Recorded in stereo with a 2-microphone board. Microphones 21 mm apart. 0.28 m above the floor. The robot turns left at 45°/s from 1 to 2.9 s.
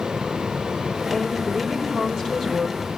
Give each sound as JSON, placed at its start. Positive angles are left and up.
{"t": 1.1, "sound": "a woman speaking", "azimuth_deg": 5, "distance_m": 6.5}